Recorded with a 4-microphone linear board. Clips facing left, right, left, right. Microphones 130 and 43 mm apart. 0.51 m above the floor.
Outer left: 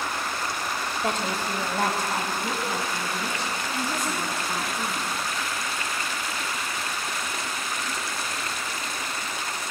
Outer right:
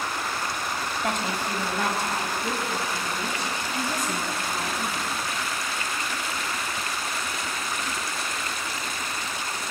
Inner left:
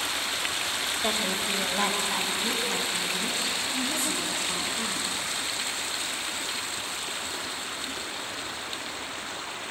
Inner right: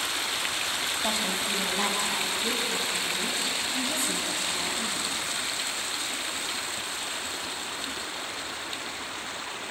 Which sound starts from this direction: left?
A woman speaking, at 1.0 s.